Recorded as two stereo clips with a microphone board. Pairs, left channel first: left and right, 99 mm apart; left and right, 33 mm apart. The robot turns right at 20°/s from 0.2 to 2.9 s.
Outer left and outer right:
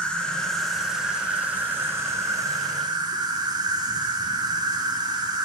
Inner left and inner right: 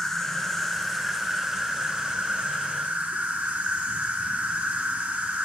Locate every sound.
0.0 s an insect: 170° left, 1.1 m; by 5.5 s 135° right, 1.1 m